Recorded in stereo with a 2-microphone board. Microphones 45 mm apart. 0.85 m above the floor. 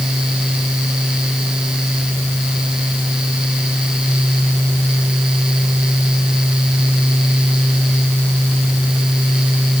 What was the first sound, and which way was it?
Only background noise.